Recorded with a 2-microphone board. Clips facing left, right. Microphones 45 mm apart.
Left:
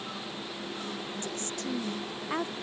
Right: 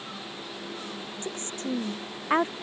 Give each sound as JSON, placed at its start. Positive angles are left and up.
{"t": 1.2, "sound": "a woman speaking", "side_deg": -35}